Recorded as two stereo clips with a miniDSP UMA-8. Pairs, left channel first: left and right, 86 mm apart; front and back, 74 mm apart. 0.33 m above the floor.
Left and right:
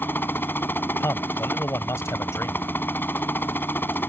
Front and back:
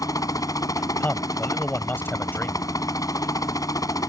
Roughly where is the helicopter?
Ahead left.